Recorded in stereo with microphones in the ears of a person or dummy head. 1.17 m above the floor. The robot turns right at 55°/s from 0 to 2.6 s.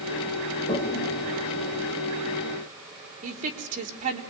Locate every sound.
0.7 s a toilet flushing: 30° left (ahead or behind), 1.6 m; by 1.9 s 70° left (ahead or behind), 1.6 m
3.2 s a woman speaking: 35° right (ahead or behind), 3 m